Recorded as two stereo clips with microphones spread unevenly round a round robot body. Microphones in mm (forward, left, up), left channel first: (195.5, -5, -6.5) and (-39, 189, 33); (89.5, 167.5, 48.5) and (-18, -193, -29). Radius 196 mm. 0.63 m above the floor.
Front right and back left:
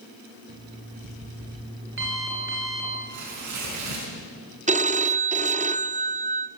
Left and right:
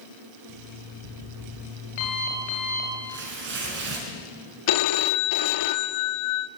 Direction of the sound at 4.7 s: 70° left.